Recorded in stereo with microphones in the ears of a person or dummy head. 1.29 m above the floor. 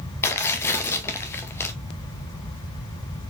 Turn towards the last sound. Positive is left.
turn(degrees=15)  # may be behind; listen again after turning